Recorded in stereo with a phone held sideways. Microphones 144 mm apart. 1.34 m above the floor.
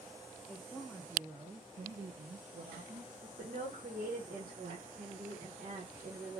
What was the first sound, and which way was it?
A woman speaking, 10° left (ahead or behind).